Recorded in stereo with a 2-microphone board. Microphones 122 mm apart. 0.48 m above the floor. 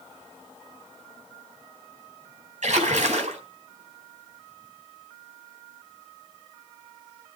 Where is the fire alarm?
I don't hear a fire alarm.